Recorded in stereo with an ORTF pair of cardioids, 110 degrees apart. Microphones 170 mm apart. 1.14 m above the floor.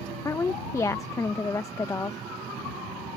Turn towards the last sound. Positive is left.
turn(degrees=20)